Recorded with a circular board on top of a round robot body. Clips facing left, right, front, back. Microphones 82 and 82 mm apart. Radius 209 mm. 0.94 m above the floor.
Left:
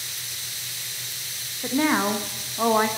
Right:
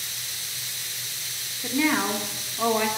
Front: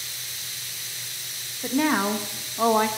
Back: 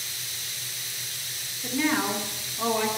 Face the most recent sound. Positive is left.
turn(degrees=40)